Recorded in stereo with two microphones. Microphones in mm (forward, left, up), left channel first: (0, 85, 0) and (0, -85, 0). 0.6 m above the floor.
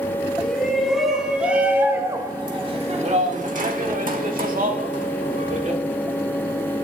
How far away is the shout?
About 3.5 m.